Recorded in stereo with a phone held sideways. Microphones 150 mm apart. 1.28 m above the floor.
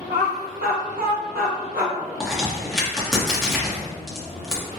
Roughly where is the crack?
Centre.